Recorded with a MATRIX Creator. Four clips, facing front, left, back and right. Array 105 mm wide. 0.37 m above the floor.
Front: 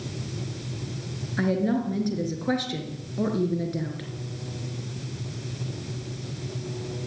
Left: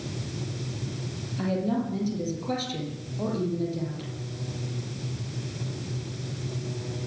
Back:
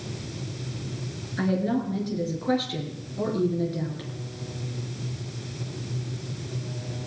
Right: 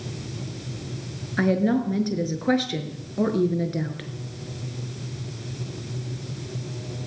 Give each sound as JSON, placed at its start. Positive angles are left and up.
{"t": 1.4, "sound": "a woman speaking", "azimuth_deg": -75, "distance_m": 5.5}